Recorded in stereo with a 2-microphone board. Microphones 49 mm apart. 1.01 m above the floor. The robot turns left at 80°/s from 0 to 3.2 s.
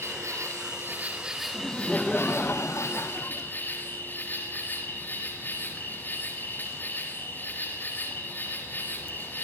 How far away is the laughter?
About 0.8 m.